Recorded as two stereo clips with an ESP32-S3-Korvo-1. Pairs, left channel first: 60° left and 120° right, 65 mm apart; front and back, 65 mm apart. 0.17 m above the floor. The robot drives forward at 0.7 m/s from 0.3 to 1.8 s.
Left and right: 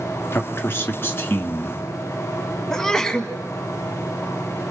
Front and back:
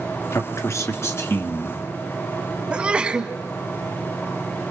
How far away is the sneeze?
About 1.6 m.